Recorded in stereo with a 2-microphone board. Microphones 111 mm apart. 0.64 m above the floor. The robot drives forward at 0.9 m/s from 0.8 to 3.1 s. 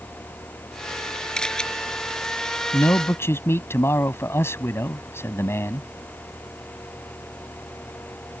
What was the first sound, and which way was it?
A camera shutter, 5° left (ahead or behind).